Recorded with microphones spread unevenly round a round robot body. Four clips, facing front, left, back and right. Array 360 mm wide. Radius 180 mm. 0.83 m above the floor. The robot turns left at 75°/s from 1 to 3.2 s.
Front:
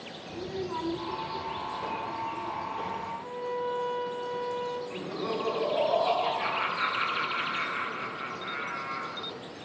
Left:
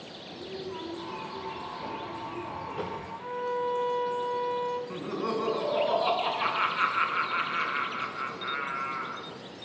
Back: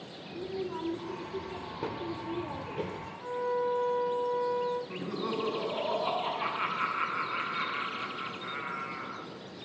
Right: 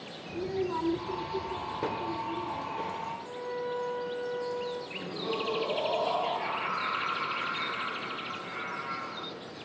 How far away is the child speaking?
About 2.5 m.